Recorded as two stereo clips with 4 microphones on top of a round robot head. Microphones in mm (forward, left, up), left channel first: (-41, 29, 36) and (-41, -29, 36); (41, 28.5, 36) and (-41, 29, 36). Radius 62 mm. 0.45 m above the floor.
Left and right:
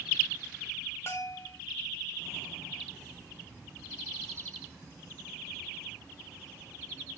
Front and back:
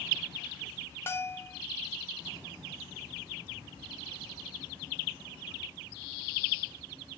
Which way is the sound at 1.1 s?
55° left.